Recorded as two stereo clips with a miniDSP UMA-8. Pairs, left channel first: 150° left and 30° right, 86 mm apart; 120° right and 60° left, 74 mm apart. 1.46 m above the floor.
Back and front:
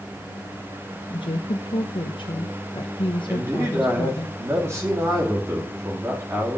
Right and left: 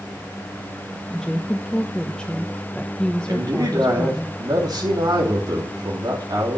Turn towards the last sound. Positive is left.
turn(degrees=30)